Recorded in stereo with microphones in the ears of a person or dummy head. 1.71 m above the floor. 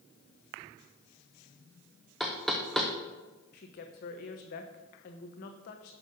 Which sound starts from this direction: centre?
Knocking, at 2.2 s.